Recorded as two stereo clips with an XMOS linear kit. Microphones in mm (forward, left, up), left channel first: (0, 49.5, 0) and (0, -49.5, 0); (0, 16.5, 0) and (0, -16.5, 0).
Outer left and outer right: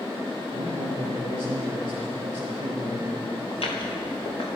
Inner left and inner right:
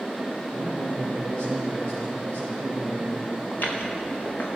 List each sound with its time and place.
0.5 s a man speaking: 50° left (ahead or behind), 5 m
3.5 s footsteps: 75° left (ahead or behind), 3.5 m; by 4.6 s 60° left (ahead or behind), 4 m